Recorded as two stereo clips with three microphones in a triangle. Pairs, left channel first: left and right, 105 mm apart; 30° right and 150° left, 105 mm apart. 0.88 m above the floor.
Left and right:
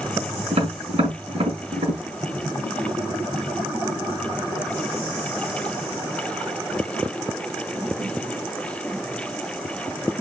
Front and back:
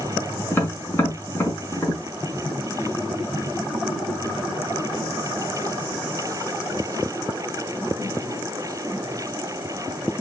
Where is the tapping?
100° right, 6 m.